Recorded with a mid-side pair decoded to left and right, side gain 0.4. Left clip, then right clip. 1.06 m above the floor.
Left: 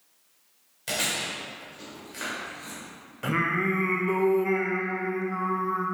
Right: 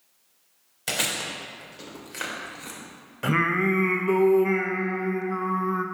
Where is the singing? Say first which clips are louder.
Right 3 dB; 35° right, 0.6 m.